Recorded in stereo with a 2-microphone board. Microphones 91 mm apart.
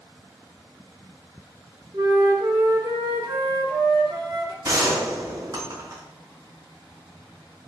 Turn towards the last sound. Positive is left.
turn(degrees=-45)  # may be behind; listen again after turning